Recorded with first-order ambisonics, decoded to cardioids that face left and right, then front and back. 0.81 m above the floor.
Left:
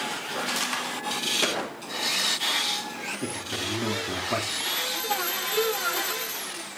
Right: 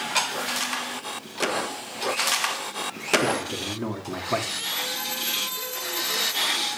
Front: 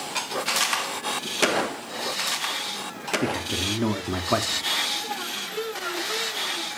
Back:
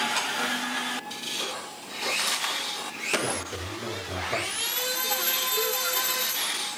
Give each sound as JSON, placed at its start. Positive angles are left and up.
{"t": 3.2, "sound": "a man speaking", "azimuth_deg": -5, "distance_m": 1.8}